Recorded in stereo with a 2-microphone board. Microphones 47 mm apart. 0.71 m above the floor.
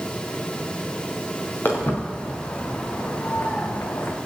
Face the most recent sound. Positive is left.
turn(degrees=55)  # may be behind; listen again after turning